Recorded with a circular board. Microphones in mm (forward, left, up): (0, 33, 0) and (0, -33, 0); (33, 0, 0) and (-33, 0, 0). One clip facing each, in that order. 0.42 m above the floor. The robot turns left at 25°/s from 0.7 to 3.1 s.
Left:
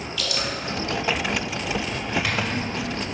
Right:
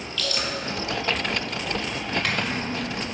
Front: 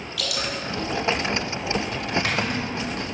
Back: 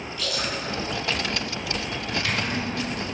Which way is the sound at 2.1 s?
5° left.